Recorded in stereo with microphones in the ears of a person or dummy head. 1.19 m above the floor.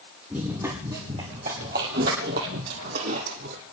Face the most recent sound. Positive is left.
turn(degrees=-55)  # may be behind; listen again after turning